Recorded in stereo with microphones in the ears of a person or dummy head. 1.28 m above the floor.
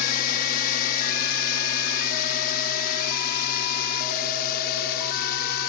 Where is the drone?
50° left (ahead or behind); by 5.7 s 60° left (ahead or behind).